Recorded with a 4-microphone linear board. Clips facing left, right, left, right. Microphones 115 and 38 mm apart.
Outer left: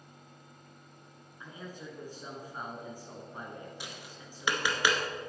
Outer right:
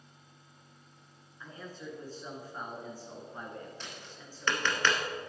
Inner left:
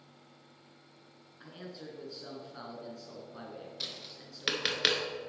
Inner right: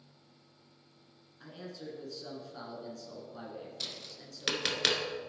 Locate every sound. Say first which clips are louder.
1.4 s a man speaking: even, inner right 1 dB; 15° left (ahead or behind), 1.8 m
3.8 s tapping: outer left 1 dB, even; 10° left (ahead or behind), 1.1 m